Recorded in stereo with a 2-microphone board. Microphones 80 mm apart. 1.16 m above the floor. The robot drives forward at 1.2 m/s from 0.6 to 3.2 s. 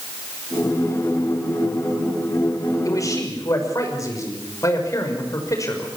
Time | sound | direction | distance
2.9 | a man speaking | 45° left (ahead or behind) | 5.5 m